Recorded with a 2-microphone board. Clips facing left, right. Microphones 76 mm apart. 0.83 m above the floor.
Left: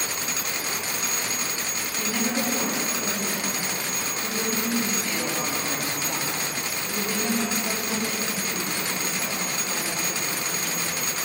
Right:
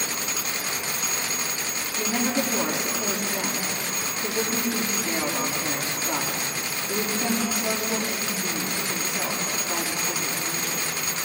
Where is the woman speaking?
20° right (ahead or behind), 7 m.